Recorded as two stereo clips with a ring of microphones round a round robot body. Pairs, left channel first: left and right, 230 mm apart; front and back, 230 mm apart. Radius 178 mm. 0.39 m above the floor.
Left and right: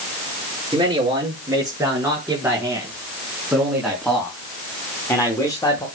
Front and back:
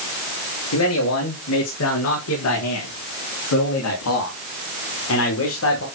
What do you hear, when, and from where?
0.7 s a man speaking: 20° right, 7 m; by 5.9 s 20° left, 4.5 m